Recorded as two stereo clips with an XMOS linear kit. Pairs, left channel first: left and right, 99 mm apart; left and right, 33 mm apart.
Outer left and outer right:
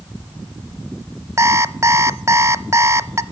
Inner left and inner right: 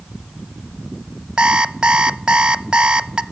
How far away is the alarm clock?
About 0.6 m.